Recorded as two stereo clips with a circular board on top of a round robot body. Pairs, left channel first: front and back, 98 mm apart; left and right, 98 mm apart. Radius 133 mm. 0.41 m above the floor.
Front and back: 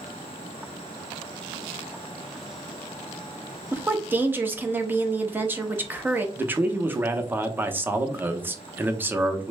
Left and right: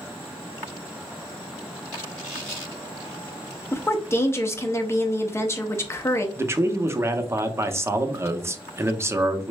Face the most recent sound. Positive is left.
turn(degrees=-130)